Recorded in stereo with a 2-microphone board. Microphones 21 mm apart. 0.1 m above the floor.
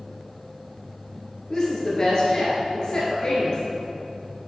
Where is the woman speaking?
30° left (ahead or behind), 1.7 m.